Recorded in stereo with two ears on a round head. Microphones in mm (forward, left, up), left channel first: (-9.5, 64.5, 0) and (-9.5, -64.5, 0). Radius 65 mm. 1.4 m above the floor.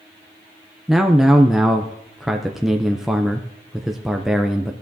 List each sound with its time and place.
0.9 s a man speaking: centre (ahead or behind), 0.5 m